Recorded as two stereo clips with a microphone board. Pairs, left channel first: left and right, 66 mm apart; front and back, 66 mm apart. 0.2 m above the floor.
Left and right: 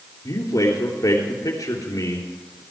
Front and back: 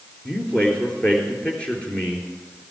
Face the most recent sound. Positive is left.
turn(degrees=70)